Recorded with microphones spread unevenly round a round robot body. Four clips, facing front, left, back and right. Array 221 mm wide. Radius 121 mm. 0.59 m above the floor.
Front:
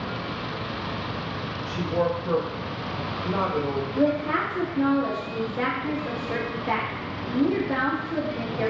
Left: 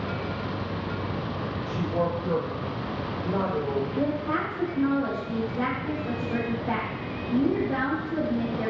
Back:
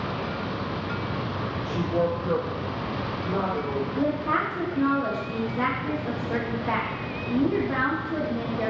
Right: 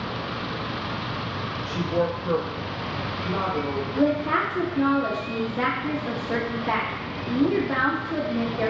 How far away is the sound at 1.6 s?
About 1.2 m.